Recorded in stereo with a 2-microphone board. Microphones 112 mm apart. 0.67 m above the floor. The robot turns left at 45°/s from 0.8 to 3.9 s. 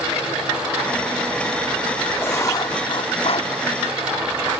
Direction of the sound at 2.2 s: 160° left.